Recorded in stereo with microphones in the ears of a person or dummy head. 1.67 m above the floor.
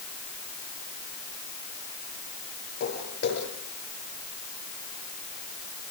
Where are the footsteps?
55° left (ahead or behind), 8 m.